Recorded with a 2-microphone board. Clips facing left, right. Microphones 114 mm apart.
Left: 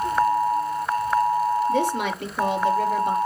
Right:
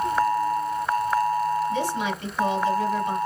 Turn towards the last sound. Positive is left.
turn(degrees=60)  # may be behind; listen again after turning